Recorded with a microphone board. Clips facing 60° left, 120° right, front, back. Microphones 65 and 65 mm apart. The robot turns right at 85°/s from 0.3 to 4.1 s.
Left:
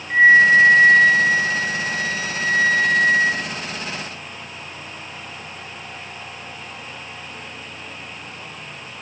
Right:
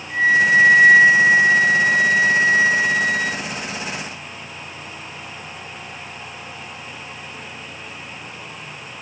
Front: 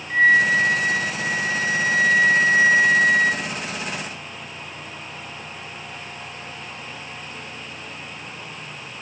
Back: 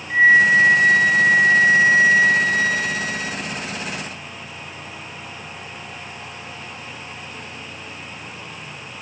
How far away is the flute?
About 1.1 m.